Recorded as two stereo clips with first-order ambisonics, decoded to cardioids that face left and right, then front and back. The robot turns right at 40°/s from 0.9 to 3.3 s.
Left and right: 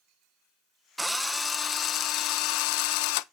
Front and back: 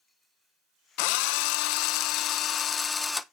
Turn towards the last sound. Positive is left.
turn(degrees=90)